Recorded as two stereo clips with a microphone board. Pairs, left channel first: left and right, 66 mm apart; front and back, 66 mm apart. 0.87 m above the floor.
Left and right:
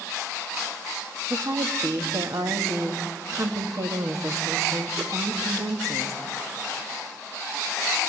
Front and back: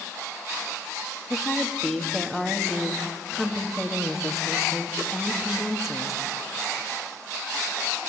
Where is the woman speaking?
95° right, 1.6 m.